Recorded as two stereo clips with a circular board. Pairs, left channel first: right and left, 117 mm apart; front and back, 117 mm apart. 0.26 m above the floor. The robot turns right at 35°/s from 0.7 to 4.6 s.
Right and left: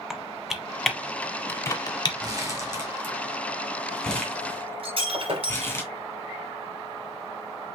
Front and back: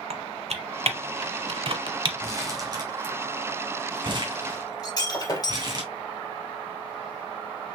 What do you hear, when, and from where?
0.1 s typing on a keyboard: 175° left, 0.8 m; by 2.1 s 135° right, 0.8 m
2.2 s crumpling: 130° left, 2.0 m; by 5.8 s 150° right, 2.0 m
4.8 s breaking glass: 60° left, 3 m